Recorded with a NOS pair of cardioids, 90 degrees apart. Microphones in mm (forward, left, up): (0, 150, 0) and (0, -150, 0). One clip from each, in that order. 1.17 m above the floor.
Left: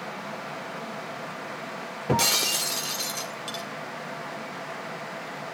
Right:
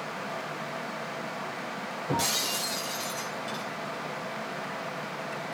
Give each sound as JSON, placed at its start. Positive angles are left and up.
{"t": 2.1, "sound": "breaking glass", "azimuth_deg": 65, "distance_m": 2.0}